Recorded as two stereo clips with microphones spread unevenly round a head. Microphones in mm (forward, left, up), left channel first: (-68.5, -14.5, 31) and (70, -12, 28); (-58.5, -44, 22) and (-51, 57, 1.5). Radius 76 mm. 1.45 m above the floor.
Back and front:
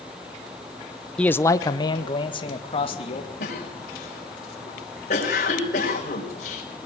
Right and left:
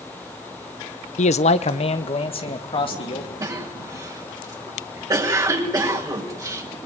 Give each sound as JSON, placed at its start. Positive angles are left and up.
{"t": 1.2, "sound": "a man speaking", "azimuth_deg": -95, "distance_m": 0.8}
{"t": 3.4, "sound": "a cough", "azimuth_deg": 140, "distance_m": 6.5}